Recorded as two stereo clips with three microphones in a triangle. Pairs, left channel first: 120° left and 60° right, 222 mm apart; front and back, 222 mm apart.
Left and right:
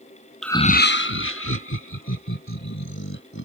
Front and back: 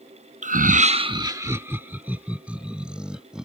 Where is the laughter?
150° right; by 3.5 s 95° left.